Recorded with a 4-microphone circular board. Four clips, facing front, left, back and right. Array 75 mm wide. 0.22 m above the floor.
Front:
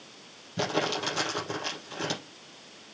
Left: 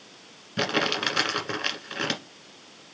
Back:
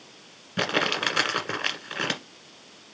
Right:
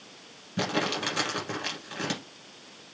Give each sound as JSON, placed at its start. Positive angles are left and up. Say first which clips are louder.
{"t": 0.6, "sound": "crumpling", "louder": "left 3 dB, back 3 dB", "azimuth_deg": 155, "distance_m": 1.4}